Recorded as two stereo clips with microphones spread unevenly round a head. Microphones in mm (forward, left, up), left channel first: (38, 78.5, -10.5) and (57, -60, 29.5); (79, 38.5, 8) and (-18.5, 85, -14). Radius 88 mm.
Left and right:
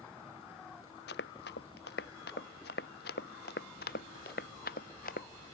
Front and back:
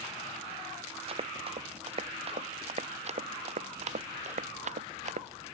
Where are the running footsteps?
120° left; by 5.5 s 145° left.